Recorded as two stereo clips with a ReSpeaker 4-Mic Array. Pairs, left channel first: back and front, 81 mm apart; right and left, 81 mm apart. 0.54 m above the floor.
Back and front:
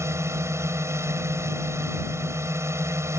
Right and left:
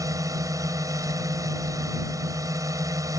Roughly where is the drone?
Ahead left.